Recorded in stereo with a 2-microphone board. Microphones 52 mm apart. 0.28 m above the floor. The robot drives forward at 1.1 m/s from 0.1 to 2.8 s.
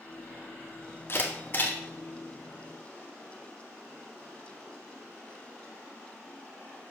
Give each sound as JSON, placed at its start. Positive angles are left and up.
{"t": 1.1, "sound": "a camera shutter", "side_deg": 45, "distance_m": 1.7}